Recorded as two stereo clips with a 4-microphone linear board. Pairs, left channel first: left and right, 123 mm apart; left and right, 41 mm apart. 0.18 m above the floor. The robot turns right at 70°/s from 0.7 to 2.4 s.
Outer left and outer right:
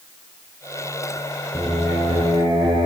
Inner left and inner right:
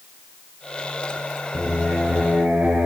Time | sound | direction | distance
1.5 | singing | 170° left | 5 m